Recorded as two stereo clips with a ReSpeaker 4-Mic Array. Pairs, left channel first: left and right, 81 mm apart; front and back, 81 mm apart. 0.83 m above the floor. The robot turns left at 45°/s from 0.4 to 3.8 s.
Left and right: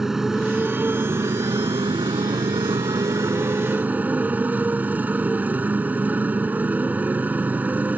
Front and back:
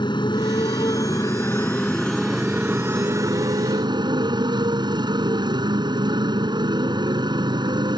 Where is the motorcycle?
5° right; by 8.0 s 160° right.